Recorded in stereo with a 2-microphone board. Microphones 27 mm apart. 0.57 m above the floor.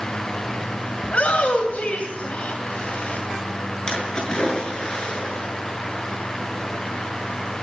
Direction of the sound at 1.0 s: 60° left (ahead or behind).